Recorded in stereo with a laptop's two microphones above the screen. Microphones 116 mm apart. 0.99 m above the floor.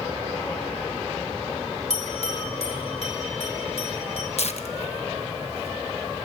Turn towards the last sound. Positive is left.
turn(degrees=65)  # may be behind; listen again after turning